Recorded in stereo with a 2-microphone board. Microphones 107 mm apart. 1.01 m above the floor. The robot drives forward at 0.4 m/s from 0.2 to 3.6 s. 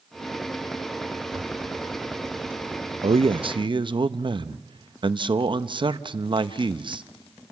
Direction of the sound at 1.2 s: 20° right (ahead or behind).